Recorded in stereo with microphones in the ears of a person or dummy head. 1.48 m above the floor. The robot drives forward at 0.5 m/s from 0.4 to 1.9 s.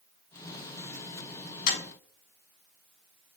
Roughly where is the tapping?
Left.